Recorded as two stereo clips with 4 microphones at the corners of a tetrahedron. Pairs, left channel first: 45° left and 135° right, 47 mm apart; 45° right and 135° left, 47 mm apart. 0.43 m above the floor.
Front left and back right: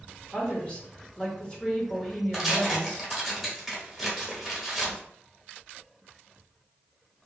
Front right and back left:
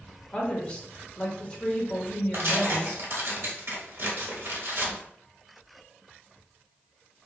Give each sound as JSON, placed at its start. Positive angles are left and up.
{"t": 0.3, "sound": "a woman speaking", "azimuth_deg": 0, "distance_m": 1.1}
{"t": 2.3, "sound": "tearing paper", "azimuth_deg": 140, "distance_m": 1.0}